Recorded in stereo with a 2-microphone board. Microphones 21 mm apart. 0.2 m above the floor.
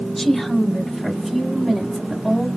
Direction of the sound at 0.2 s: 10° left (ahead or behind).